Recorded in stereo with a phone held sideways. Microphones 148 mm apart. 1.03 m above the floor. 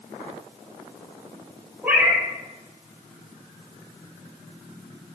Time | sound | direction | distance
1.8 | a cat meowing | 10° right (ahead or behind) | 2 m